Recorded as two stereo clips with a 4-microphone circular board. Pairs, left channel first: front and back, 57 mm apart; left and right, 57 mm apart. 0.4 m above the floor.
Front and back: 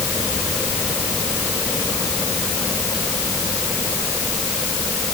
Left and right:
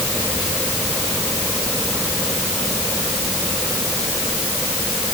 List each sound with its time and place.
Only background noise.